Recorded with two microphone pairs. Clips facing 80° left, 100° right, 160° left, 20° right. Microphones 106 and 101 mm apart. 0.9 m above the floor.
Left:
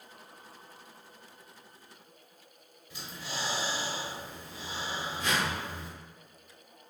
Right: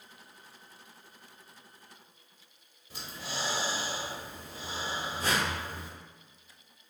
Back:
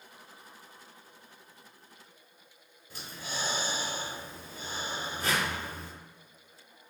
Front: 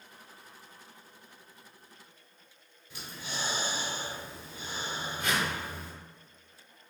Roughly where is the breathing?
Behind right.